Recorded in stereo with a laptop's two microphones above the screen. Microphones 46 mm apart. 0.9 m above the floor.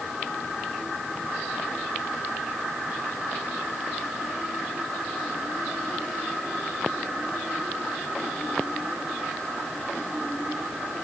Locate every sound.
Only background noise.